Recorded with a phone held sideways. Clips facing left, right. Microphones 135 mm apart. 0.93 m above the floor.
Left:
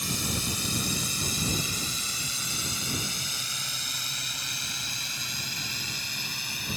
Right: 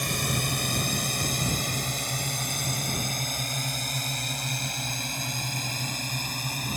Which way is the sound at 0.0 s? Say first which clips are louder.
Right 3 dB; 60° right (ahead or behind).